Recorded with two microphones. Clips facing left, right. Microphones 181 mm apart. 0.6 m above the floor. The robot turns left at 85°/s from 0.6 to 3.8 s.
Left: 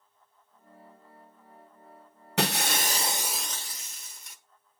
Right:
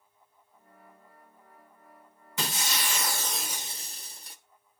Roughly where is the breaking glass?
Left.